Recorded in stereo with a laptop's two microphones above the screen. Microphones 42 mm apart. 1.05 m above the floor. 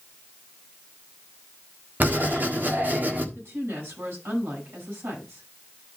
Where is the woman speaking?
70° right (ahead or behind), 9 m.